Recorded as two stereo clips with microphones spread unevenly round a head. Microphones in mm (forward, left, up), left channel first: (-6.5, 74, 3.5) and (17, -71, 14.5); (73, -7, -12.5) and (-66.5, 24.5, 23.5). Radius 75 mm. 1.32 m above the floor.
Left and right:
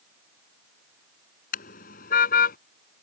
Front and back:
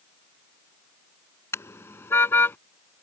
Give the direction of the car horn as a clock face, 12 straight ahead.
10 o'clock.